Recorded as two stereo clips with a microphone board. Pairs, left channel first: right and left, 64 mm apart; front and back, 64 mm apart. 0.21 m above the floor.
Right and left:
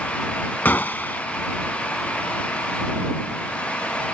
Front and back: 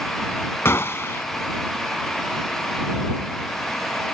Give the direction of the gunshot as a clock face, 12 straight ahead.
1 o'clock.